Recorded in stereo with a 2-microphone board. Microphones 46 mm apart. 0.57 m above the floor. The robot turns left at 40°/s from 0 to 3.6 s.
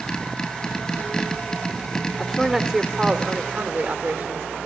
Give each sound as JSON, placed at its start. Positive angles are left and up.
{"t": 2.2, "sound": "a woman speaking", "azimuth_deg": 30, "distance_m": 1.4}